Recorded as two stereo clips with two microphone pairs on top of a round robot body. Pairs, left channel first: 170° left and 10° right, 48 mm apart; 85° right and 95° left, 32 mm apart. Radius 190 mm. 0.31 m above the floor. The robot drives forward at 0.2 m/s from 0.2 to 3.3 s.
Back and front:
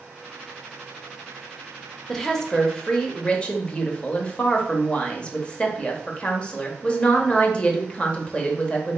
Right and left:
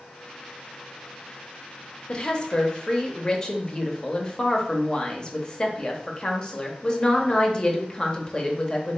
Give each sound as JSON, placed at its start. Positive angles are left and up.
{"t": 2.1, "sound": "a woman speaking", "azimuth_deg": -105, "distance_m": 0.9}